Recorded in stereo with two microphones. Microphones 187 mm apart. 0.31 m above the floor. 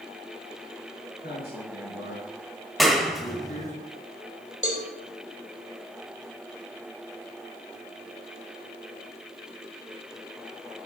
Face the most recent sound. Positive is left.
turn(degrees=0)  # may be behind; listen again after turning